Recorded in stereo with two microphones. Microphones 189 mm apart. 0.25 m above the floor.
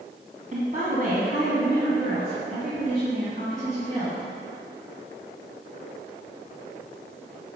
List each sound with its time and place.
0.5 s a woman speaking: 40° right (ahead or behind), 2 m; by 4.2 s 45° right (ahead or behind), 4.5 m